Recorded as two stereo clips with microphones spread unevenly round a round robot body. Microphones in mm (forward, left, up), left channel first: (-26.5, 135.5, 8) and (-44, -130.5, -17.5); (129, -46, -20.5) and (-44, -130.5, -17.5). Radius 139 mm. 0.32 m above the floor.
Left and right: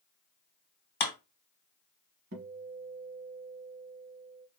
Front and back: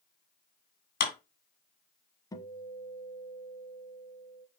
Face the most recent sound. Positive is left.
turn(degrees=-45)